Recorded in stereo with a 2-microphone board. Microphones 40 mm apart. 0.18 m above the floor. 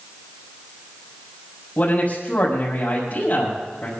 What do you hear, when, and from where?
1.8 s a man speaking: 40° left (ahead or behind), 6 m